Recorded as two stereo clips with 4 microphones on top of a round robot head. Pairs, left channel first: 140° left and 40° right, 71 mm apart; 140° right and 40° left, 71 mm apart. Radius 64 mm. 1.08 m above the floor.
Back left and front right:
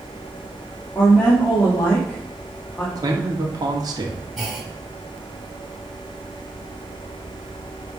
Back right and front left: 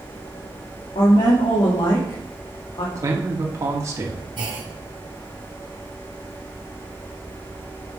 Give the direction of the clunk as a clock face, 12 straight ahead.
11 o'clock.